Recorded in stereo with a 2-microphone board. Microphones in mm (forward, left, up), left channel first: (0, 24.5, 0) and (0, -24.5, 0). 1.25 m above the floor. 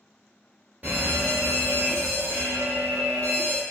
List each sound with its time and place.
0.8 s a fire alarm: 30° right (ahead or behind), 1.1 m